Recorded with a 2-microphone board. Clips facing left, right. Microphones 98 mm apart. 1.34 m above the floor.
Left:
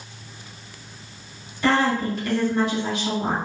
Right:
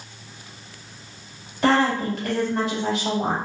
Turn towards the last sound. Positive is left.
turn(degrees=-75)  # may be behind; listen again after turning